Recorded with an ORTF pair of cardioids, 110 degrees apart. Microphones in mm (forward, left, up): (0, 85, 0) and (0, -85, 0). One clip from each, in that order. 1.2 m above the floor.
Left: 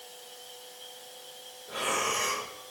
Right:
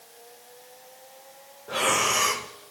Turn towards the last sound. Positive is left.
turn(degrees=-50)